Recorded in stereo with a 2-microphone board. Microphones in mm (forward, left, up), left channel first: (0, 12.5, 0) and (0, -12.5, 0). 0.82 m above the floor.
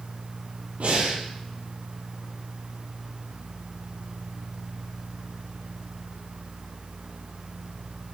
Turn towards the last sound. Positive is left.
turn(degrees=-80)